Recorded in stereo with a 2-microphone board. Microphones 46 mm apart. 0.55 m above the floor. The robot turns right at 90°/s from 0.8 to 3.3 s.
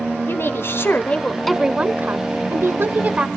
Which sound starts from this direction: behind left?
A woman speaking, at 0.3 s.